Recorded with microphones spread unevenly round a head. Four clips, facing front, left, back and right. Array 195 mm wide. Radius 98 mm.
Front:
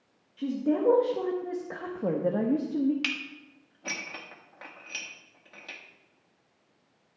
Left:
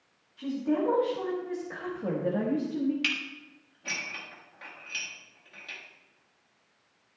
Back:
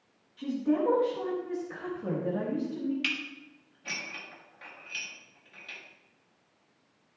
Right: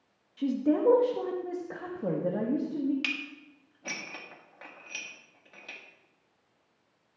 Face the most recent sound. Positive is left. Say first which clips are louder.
# left 2 dB, even
turn(degrees=-25)